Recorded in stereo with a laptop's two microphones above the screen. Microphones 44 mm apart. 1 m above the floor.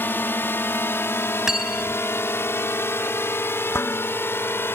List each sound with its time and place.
0.0 s a drone: 55° left (ahead or behind)
1.5 s cutlery clinking: 10° right (ahead or behind)
3.7 s dishes clattering: 70° left (ahead or behind)